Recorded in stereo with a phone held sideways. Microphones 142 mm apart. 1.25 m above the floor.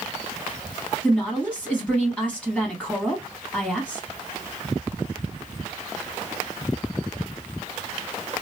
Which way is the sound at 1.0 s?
10° left (ahead or behind).